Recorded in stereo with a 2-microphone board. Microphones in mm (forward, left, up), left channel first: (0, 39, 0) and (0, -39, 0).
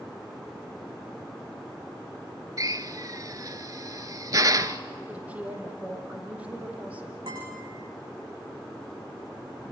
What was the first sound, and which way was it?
A drill, 45° right (ahead or behind).